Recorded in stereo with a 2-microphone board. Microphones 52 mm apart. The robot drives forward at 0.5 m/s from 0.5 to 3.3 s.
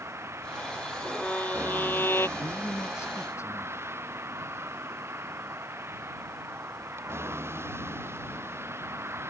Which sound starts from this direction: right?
A vehicle, at 0.0 s.